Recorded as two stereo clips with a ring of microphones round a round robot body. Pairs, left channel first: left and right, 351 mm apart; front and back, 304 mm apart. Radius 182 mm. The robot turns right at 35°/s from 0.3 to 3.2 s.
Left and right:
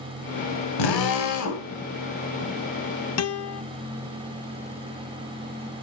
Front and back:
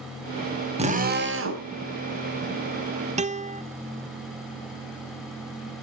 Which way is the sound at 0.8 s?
110° left.